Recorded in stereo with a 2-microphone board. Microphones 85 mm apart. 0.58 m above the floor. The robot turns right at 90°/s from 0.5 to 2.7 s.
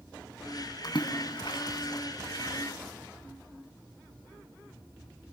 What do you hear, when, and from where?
0.8 s a splash: 55° left (ahead or behind), 3 m; by 2.0 s 20° left (ahead or behind), 3 m